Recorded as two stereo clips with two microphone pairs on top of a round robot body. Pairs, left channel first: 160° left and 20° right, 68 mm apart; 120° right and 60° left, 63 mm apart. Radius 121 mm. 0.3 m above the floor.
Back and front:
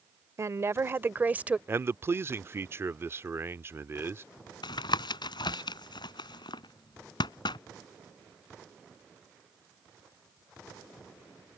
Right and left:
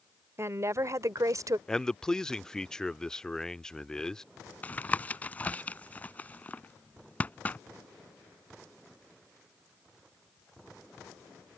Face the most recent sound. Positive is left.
turn(degrees=170)